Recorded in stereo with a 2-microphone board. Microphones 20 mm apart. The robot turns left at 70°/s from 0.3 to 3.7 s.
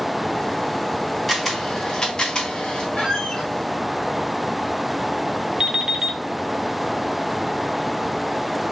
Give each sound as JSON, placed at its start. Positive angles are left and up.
{"t": 1.3, "sound": "a camera shutter", "side_deg": -5, "distance_m": 1.0}
{"t": 3.0, "sound": "a squeak", "azimuth_deg": 90, "distance_m": 1.7}
{"t": 5.6, "sound": "an alarm clock", "side_deg": -40, "distance_m": 0.7}